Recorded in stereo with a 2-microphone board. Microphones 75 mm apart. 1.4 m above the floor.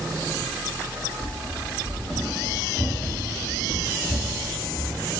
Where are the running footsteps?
Centre (ahead or behind), 2.5 m; by 5.0 s 10° right (ahead or behind), 1.4 m.